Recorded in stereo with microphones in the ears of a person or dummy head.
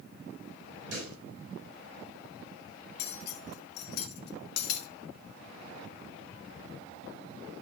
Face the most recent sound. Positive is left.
turn(degrees=65)  # may be behind; listen again after turning